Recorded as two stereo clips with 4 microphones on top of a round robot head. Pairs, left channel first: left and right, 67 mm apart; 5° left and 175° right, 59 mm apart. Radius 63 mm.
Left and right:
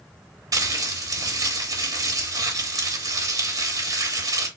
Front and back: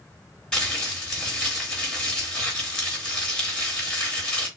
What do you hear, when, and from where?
0.5 s crumpling: 80° right, 1.8 m